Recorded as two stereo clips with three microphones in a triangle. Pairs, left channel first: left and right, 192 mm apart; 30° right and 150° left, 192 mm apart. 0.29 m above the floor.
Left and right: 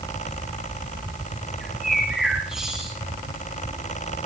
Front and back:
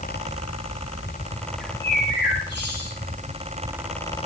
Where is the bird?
5° right, 6 m.